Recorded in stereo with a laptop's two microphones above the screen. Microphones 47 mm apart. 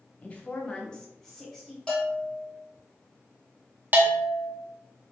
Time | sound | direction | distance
0.2 | a woman speaking | 25° left (ahead or behind) | 1.0 m
1.9 | a bell | 20° left (ahead or behind) | 1.2 m
3.9 | a bell | 40° right (ahead or behind) | 0.5 m